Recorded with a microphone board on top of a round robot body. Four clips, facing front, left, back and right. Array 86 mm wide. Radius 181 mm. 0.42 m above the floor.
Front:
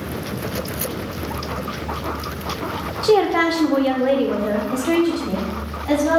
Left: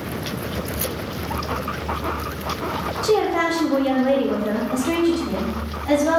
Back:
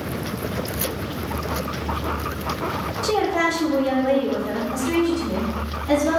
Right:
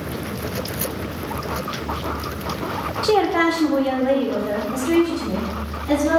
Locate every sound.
3.0 s a woman speaking: 50° right, 1.0 m; by 6.2 s 45° left, 1.8 m